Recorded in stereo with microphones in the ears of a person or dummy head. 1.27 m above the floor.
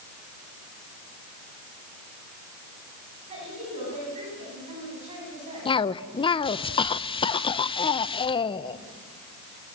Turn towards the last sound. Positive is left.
turn(degrees=30)  # may be behind; listen again after turning